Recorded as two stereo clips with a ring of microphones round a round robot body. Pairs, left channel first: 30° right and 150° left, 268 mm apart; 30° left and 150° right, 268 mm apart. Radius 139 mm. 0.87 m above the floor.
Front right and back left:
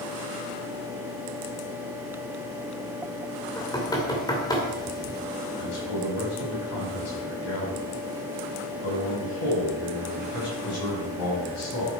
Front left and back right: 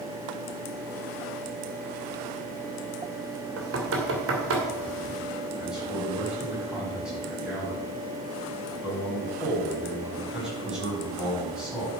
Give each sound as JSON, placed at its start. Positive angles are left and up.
{"t": 3.6, "sound": "knocking", "azimuth_deg": -105, "distance_m": 2.5}
{"t": 5.6, "sound": "a man speaking", "azimuth_deg": -65, "distance_m": 5.5}